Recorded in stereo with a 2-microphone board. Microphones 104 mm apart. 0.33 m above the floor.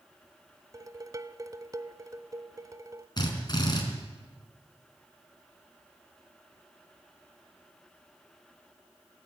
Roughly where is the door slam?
I don't hear a door slam.